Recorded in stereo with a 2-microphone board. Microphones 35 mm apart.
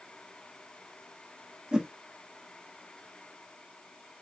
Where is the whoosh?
25° right (ahead or behind), 0.7 m.